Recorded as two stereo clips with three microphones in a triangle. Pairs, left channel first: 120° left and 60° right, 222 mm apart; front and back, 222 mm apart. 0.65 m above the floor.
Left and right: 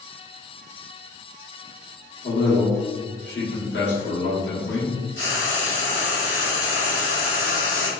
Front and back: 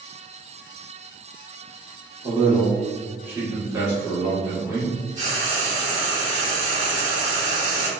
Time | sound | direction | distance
2.2 | a man speaking | 100° left | 1.4 m
5.2 | frying | 130° left | 1.2 m